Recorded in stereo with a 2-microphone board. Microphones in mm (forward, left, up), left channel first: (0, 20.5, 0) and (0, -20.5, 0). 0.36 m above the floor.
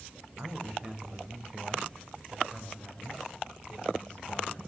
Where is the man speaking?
35° right (ahead or behind), 2 m; by 4.6 s 25° left (ahead or behind), 2.5 m.